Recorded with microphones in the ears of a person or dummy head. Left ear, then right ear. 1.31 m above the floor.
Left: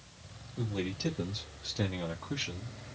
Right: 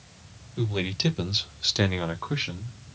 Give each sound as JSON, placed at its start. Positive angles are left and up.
{"t": 0.6, "sound": "a man speaking", "side_deg": -40, "distance_m": 1.6}